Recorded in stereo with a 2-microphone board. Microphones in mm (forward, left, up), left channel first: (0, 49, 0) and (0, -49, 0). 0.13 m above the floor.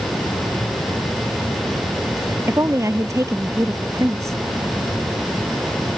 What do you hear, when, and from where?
2.5 s a woman speaking: 30° right (ahead or behind)